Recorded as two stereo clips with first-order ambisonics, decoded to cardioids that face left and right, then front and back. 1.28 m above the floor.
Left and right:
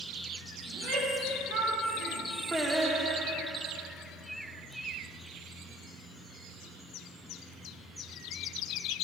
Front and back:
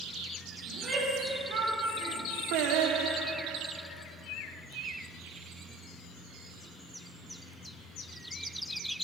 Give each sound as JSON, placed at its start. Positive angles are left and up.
{"t": 0.7, "sound": "a shout", "azimuth_deg": -115, "distance_m": 3.5}
{"t": 2.5, "sound": "singing", "azimuth_deg": -170, "distance_m": 0.7}